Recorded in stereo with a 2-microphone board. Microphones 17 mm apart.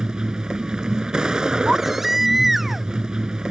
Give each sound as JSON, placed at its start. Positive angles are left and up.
{"t": 0.0, "sound": "a vehicle", "side_deg": -40}
{"t": 1.7, "sound": "a baby crying", "side_deg": -20}